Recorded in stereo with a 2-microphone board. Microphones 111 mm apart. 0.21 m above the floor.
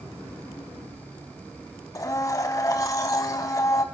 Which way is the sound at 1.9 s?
30° left (ahead or behind).